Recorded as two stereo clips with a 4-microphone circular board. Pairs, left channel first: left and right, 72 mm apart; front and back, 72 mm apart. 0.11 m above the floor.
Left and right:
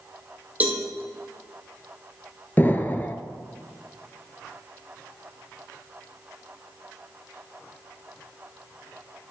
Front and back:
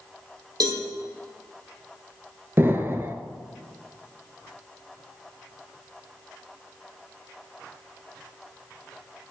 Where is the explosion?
135° left, 0.6 m.